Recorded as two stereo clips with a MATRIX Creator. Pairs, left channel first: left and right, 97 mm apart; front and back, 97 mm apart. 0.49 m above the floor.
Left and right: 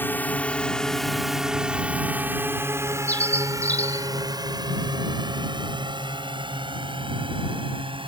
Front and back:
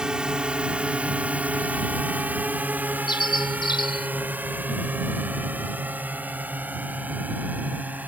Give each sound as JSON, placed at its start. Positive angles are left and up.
{"t": 0.0, "sound": "a drone", "azimuth_deg": 110}
{"t": 3.1, "sound": "a bird", "azimuth_deg": 20}